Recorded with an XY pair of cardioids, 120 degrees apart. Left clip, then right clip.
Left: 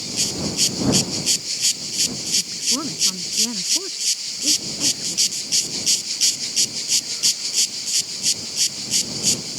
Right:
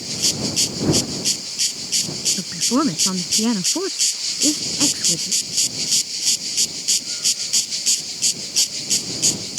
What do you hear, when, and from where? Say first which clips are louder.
2.4 s a woman speaking: right 1 dB; 55° right